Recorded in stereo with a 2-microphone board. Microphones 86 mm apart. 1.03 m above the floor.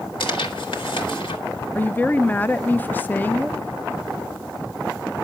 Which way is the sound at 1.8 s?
20° left (ahead or behind).